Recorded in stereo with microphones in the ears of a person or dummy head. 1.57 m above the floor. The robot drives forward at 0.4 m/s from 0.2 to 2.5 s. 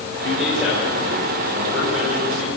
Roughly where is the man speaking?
Centre.